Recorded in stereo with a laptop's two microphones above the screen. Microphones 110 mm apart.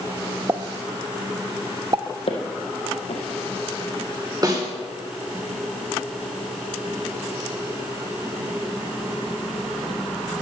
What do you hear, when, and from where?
0.5 s a pop: 35° right (ahead or behind), 0.5 m
2.3 s footsteps: 65° left (ahead or behind), 3 m
4.4 s a snare drum: 35° right (ahead or behind), 2.0 m